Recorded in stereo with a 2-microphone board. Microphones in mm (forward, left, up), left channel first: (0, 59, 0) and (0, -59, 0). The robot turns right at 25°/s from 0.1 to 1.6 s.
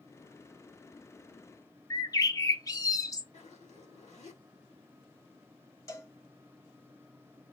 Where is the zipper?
85° left, 4 m.